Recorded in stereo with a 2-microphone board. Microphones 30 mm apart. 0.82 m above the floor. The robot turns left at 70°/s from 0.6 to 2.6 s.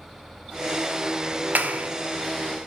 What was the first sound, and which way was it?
A clap, 75° right (ahead or behind).